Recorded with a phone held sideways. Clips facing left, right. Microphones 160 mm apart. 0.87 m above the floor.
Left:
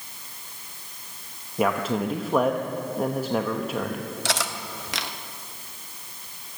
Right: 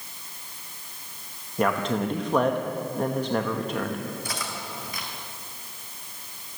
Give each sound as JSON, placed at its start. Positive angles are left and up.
{"t": 1.6, "sound": "a man speaking", "side_deg": 5, "distance_m": 0.8}
{"t": 4.2, "sound": "cutlery clinking", "side_deg": 85, "distance_m": 0.8}